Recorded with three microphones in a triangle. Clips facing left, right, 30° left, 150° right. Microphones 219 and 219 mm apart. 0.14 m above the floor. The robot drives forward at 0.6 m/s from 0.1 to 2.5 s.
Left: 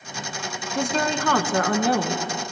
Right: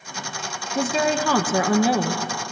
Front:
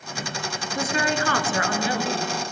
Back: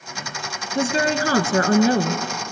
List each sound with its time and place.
0.8 s a woman speaking: 170° right, 1.1 m; by 2.2 s 175° right, 1.7 m